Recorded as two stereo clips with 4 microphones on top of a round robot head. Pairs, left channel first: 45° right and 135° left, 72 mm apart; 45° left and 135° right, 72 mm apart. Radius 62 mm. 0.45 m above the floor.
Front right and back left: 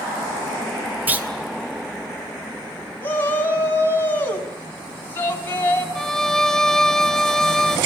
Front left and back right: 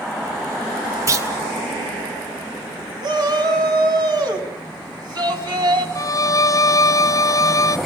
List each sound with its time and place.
1.1 s a clunk: 165° right, 2 m
3.0 s a shout: 110° right, 3.5 m
6.0 s a violin: 40° left, 1.2 m